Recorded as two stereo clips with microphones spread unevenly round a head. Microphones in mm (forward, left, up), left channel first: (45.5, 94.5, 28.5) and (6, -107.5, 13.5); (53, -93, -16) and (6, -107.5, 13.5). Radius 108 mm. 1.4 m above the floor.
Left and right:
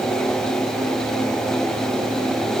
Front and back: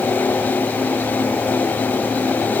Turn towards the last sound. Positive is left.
No sound to turn to.